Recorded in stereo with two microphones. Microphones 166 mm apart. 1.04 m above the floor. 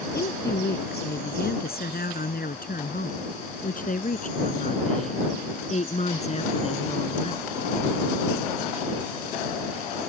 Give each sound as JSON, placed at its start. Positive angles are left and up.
{"t": 0.1, "sound": "a woman speaking", "side_deg": 75}